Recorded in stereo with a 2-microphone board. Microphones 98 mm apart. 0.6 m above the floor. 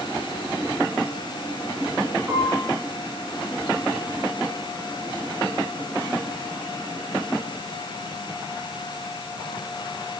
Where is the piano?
25° right (ahead or behind), 6 m.